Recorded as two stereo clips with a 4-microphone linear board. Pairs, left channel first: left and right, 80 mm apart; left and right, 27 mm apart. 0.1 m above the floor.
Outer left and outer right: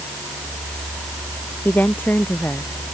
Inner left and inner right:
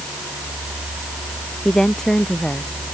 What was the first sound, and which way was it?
A woman speaking, 25° left (ahead or behind).